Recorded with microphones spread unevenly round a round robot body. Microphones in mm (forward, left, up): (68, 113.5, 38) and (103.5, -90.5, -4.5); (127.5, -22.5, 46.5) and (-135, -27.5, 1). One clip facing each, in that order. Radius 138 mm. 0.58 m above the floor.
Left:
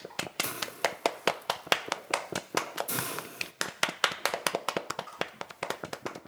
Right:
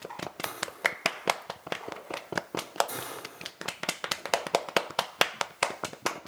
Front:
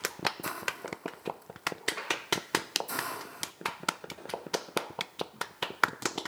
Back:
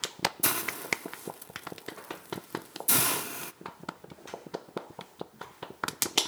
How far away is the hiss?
About 0.8 m.